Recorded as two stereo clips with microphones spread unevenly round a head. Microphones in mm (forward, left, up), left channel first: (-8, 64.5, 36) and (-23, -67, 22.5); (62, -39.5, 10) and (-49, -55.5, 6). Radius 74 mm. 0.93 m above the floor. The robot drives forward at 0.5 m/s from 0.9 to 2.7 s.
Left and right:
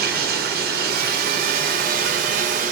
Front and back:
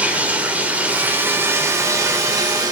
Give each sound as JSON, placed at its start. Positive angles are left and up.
{"t": 0.0, "sound": "running water", "azimuth_deg": -95, "distance_m": 2.0}